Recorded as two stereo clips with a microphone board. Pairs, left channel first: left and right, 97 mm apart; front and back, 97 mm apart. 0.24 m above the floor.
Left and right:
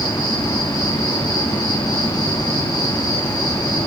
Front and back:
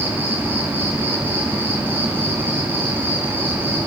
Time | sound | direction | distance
0.0 | an insect | 120° left | 3 m